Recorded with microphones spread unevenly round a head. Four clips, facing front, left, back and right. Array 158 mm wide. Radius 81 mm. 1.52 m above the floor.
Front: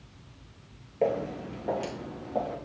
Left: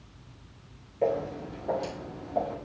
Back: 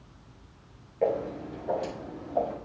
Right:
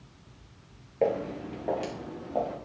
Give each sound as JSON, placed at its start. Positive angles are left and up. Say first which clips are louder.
{"t": 1.0, "sound": "footsteps", "louder": "even, even", "azimuth_deg": -70, "distance_m": 2.5}